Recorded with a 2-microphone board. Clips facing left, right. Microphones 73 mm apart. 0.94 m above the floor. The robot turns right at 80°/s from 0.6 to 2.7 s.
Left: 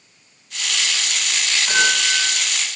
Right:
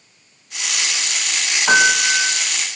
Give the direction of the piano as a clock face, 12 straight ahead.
4 o'clock.